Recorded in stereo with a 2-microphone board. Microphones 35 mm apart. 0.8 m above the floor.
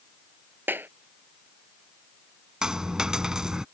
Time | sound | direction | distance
0.7 | a clap | 85° right | ?
2.6 | a dropped coin | 20° right (ahead or behind) | ?